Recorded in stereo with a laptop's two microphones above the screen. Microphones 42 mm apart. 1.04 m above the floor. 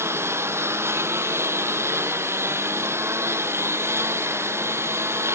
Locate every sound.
0.0 s a lawn mower: 80° right